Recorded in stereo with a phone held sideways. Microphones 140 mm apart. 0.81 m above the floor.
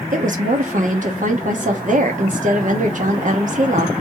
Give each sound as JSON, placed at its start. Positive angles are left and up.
{"t": 0.1, "sound": "a woman speaking", "side_deg": -60, "distance_m": 1.1}